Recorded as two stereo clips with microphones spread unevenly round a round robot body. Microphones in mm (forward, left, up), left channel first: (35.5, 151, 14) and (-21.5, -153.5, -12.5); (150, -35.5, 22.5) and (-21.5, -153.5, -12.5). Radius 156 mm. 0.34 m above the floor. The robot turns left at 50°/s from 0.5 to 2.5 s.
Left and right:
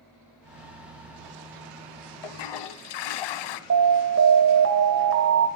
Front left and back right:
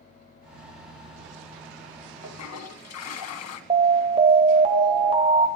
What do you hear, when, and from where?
2.2 s a toilet flushing: 80° left, 0.8 m; by 3.6 s 70° left, 0.8 m
3.7 s an alarm: 110° right, 1.3 m